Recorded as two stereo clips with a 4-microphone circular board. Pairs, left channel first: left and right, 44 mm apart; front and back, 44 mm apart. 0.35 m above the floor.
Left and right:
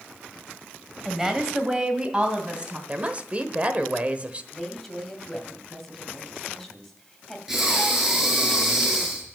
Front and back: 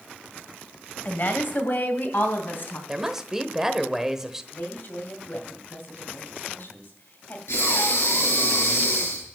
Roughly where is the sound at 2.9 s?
Right.